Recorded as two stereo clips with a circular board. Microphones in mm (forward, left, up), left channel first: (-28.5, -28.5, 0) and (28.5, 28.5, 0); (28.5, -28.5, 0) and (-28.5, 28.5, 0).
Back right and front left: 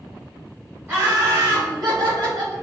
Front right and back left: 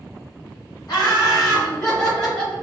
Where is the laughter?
15° right, 2.0 m; by 2.5 s 25° left, 2 m.